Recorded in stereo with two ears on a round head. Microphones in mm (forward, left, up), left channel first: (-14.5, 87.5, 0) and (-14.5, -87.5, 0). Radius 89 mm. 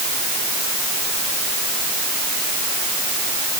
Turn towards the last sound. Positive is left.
No sound to turn to.